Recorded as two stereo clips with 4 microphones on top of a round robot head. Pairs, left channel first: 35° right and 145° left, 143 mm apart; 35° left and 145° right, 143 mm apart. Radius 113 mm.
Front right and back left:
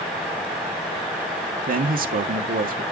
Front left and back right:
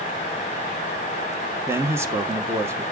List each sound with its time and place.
1.7 s a man speaking: 145° left, 1.5 m